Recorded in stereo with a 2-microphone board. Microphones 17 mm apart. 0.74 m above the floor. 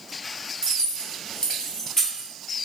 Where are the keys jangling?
50° left (ahead or behind), 1.0 m; by 2.3 s 20° left (ahead or behind), 1.3 m.